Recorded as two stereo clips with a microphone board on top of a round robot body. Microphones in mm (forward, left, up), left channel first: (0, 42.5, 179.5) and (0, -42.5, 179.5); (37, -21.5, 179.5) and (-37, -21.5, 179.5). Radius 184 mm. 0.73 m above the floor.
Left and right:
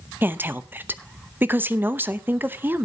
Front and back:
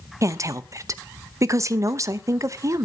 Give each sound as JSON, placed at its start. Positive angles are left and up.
{"t": 0.2, "sound": "a woman speaking", "azimuth_deg": -150, "distance_m": 1.0}